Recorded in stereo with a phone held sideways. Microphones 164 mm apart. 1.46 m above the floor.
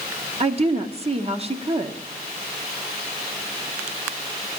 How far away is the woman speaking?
About 0.7 m.